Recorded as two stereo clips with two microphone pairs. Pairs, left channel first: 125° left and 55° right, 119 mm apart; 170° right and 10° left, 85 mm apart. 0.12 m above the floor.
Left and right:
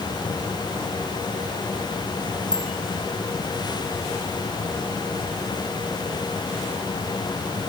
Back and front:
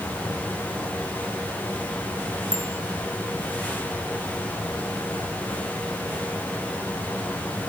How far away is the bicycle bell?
About 5 m.